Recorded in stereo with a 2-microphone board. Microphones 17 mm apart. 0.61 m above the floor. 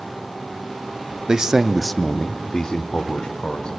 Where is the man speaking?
40° right (ahead or behind), 0.8 m; by 3.7 s 65° left (ahead or behind), 2.0 m.